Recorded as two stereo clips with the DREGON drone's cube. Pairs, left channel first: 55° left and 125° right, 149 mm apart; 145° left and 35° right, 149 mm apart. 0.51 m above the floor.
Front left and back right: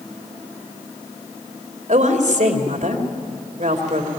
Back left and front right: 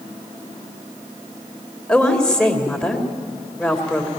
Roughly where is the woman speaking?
Behind right.